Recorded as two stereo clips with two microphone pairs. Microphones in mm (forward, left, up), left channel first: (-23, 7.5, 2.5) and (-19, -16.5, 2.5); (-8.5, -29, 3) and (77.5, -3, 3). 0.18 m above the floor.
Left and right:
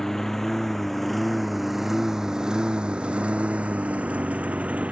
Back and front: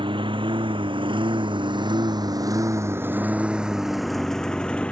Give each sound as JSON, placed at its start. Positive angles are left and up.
{"t": 0.0, "sound": "a lawn mower", "azimuth_deg": 25}